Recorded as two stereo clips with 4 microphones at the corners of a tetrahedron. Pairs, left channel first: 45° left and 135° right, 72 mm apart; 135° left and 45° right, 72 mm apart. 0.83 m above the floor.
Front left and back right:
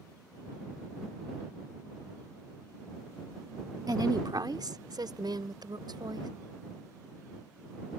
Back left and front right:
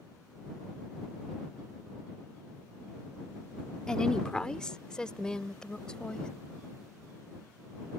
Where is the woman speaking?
145° right.